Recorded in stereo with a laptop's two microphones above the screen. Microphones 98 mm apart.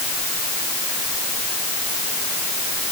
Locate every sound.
Only background noise.